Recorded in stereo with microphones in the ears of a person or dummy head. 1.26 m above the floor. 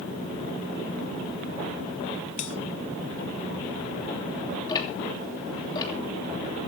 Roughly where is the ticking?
Left.